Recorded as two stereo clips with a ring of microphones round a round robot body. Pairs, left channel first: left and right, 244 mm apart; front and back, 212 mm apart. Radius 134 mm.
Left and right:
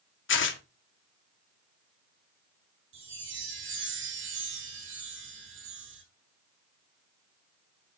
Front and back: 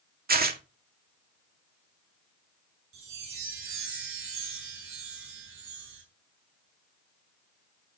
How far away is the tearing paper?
About 1.7 m.